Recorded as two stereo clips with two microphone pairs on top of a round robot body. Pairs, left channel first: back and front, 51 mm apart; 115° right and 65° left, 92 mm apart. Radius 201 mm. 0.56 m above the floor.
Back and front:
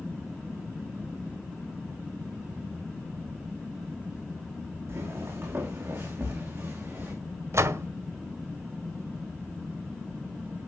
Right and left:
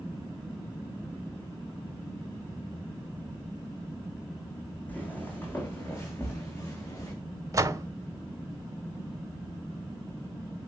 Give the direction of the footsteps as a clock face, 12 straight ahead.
1 o'clock.